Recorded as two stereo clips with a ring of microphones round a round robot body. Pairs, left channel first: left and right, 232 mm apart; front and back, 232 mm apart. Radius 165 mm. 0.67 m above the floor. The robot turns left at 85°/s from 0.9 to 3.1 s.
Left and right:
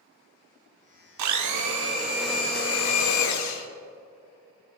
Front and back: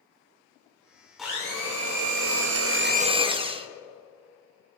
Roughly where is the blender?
Right.